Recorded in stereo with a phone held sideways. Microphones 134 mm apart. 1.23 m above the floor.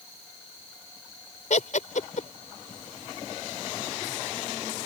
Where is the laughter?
65° left (ahead or behind).